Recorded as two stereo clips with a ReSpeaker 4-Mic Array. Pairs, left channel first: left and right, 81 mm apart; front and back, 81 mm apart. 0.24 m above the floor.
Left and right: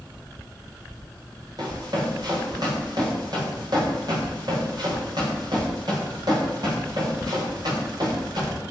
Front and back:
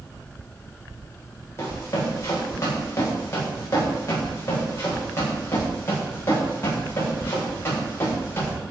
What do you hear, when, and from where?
1.6 s running footsteps: 55° right, 7 m; by 8.6 s 60° right, 12 m